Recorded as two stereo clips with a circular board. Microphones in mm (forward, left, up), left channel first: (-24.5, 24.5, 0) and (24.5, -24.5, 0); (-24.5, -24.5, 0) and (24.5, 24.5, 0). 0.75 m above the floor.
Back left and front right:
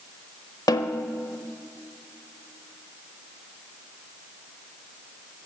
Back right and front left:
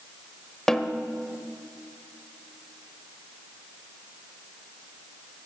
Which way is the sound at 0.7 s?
145° left.